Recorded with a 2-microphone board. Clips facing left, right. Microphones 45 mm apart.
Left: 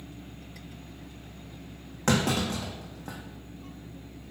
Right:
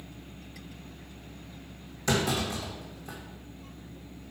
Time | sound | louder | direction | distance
2.1 | a clunk | left 2 dB | 55° left (ahead or behind) | 2.5 m